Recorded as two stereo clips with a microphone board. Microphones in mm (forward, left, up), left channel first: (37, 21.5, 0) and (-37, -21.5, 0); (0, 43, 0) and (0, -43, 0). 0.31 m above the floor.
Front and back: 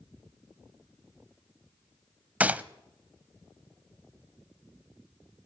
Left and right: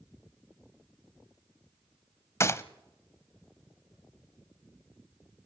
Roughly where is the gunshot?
Behind left.